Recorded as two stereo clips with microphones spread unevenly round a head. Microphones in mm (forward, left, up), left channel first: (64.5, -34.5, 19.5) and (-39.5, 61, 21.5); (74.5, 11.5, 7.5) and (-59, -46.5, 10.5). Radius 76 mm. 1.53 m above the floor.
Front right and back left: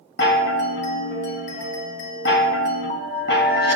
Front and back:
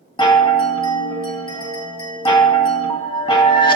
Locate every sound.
0.2 s a chime: 35° right, 1.4 m